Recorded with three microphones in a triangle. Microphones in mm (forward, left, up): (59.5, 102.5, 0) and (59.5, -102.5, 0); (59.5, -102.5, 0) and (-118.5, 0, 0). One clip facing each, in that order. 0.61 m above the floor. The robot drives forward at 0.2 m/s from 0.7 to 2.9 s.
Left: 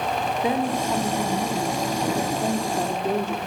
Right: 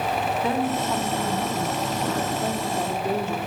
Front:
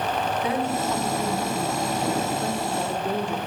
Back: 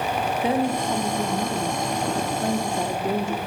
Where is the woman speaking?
140° left, 1.1 m; by 3.4 s 160° left, 1.3 m.